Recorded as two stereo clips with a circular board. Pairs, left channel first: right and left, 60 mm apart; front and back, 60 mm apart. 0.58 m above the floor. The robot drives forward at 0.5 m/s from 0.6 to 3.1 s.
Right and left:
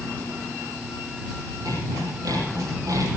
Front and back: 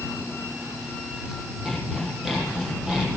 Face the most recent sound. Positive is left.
turn(degrees=100)